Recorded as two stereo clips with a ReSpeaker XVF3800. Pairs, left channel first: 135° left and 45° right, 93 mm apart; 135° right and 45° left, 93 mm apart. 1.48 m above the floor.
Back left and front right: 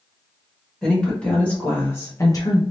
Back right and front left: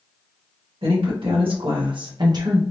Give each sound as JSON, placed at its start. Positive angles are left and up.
{"t": 0.8, "sound": "a woman speaking", "azimuth_deg": 55, "distance_m": 1.8}